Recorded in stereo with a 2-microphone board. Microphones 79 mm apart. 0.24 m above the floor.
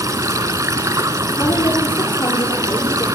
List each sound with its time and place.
0.0 s running water: 45° right (ahead or behind), 1.2 m
1.4 s a woman speaking: 55° left (ahead or behind), 8.5 m